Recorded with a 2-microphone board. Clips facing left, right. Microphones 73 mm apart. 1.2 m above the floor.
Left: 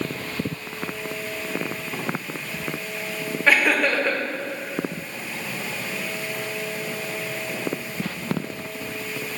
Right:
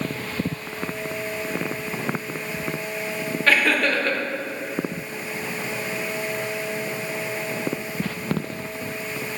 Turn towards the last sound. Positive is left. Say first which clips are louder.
# left 1 dB
turn(degrees=15)  # may be behind; listen again after turning